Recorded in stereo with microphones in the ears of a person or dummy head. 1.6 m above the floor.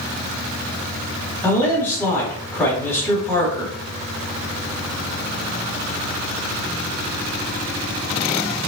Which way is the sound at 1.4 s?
10° left (ahead or behind).